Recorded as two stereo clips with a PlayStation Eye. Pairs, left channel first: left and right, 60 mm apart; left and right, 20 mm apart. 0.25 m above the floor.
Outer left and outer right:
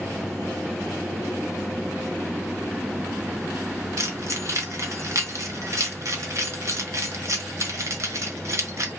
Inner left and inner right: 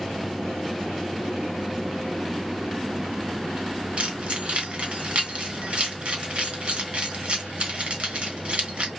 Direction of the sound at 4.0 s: 60° right (ahead or behind).